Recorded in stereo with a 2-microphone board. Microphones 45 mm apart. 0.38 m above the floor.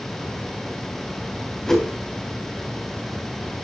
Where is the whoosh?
5° left (ahead or behind), 2.5 m.